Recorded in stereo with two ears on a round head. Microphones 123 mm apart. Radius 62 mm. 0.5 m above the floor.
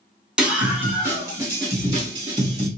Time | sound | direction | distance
0.4 | a scream | 5° right (ahead or behind) | 1.7 m